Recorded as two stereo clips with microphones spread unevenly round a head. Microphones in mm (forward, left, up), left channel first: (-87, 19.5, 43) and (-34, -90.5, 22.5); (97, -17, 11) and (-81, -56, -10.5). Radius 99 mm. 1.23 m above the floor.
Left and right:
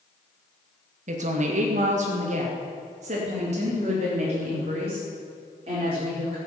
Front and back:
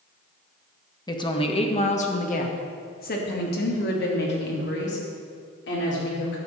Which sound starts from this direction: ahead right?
A woman speaking, at 1.1 s.